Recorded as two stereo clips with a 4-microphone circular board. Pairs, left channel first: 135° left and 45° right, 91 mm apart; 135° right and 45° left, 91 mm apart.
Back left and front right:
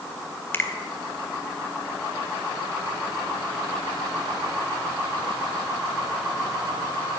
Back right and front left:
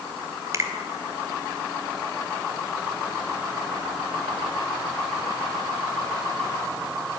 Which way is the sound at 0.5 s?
80° left.